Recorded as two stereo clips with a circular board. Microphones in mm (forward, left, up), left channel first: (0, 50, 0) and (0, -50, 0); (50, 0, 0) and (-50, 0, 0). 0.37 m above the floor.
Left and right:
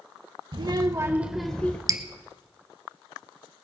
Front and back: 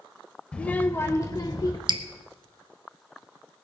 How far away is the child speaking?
About 0.9 m.